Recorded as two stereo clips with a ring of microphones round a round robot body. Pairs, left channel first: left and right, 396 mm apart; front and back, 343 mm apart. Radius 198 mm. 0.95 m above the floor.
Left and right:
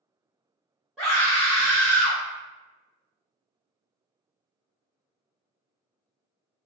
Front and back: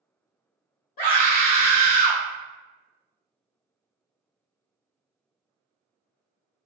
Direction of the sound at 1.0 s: Straight ahead.